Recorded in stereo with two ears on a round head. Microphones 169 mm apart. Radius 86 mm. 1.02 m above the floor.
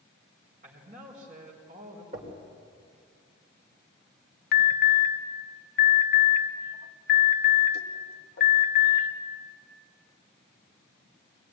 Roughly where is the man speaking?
Right.